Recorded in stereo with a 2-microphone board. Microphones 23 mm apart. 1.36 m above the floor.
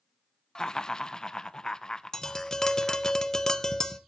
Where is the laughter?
30° left (ahead or behind), 0.7 m.